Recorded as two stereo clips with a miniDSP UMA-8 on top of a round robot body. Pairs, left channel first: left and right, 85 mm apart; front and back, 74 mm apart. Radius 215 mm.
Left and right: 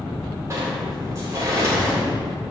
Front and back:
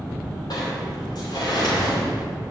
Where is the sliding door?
30° right, 2.0 m.